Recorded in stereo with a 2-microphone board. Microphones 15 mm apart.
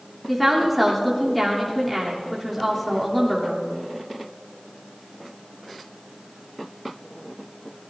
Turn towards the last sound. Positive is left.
turn(degrees=0)  # may be behind; listen again after turning